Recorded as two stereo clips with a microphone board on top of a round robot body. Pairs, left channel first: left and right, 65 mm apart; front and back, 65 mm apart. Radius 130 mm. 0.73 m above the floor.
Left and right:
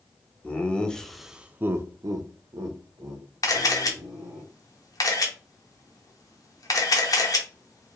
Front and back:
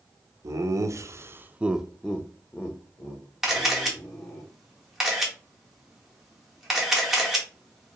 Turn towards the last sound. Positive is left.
turn(degrees=95)